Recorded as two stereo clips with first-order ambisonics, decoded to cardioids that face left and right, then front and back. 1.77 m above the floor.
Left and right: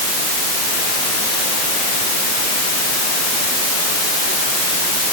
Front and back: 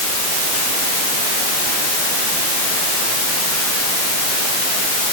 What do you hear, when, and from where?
Only background noise.